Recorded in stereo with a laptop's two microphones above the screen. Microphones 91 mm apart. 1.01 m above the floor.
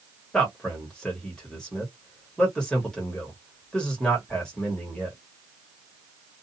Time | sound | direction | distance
0.3 | a man speaking | 10° left (ahead or behind) | 1.3 m